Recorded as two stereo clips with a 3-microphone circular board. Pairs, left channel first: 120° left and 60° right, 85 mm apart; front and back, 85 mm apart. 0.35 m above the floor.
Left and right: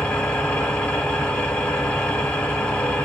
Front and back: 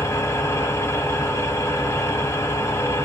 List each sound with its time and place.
0.0 s an engine running: 40° left, 1.3 m